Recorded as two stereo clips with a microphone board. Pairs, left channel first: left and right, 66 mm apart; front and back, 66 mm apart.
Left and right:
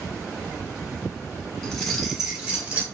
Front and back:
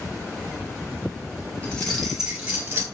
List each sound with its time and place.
1.6 s keys jangling: 30° left, 0.9 m; by 2.8 s 140° right, 1.1 m